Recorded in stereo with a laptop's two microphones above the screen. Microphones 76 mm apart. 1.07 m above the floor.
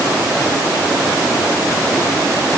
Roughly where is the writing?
I don't hear writing.